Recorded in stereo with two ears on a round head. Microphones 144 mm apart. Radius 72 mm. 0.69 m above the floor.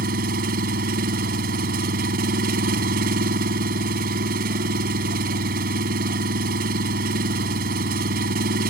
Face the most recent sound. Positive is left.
turn(degrees=-60)  # may be behind; listen again after turning